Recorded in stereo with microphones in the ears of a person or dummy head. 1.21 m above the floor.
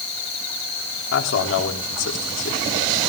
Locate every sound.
1.1 s a man speaking: 65° left (ahead or behind), 3.5 m